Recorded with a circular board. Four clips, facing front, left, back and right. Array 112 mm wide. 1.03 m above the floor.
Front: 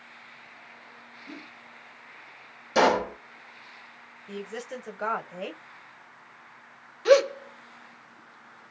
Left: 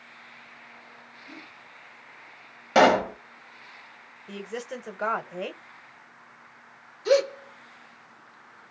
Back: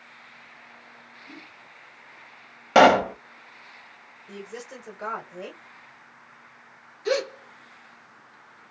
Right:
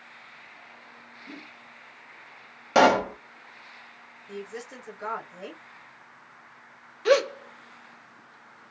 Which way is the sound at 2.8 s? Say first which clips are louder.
Left 1 dB, back 6 dB; 175° right.